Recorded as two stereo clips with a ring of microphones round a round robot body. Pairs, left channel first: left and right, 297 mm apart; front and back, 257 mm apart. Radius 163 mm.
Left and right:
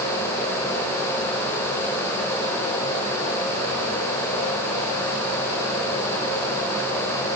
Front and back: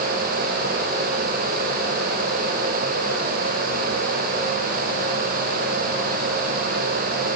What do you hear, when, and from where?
Only background noise.